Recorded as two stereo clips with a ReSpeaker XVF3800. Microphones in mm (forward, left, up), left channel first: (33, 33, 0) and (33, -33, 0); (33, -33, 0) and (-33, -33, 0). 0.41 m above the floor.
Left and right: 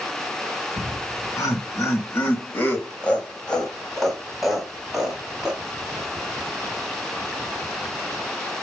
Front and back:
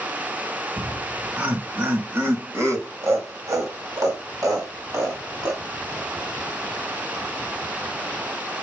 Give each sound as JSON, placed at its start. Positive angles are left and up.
{"t": 0.8, "sound": "laughter", "azimuth_deg": 105, "distance_m": 2.5}